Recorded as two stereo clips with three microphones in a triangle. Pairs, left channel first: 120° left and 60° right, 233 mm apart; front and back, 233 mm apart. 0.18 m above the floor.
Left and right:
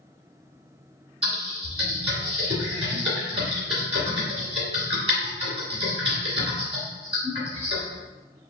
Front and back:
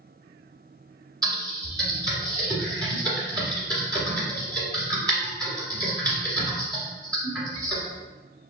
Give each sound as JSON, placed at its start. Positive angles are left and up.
{"t": 1.2, "sound": "typing on a keyboard", "azimuth_deg": -110, "distance_m": 1.4}